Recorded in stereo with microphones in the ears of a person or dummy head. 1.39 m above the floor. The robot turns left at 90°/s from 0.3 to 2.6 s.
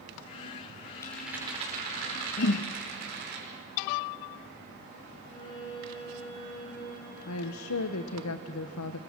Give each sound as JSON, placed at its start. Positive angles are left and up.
{"t": 1.0, "sound": "a rattle", "azimuth_deg": 20, "distance_m": 5.5}
{"t": 2.4, "sound": "a whoosh", "side_deg": 45, "distance_m": 0.7}
{"t": 5.2, "sound": "a violin", "side_deg": 40, "distance_m": 8.5}
{"t": 7.3, "sound": "a woman speaking", "side_deg": 85, "distance_m": 0.9}